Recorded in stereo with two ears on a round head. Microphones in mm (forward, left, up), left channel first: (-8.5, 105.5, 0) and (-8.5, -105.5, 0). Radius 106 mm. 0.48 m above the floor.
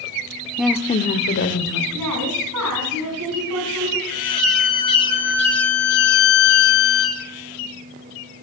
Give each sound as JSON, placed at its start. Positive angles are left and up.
{"t": 0.6, "sound": "a woman speaking", "side_deg": -10, "distance_m": 0.8}
{"t": 1.9, "sound": "a woman speaking", "side_deg": -80, "distance_m": 4.5}
{"t": 4.1, "sound": "a violin", "side_deg": 5, "distance_m": 5.0}